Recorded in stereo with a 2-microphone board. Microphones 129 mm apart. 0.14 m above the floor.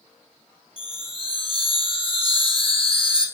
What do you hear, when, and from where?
0.8 s a chime: 45° left (ahead or behind), 1.6 m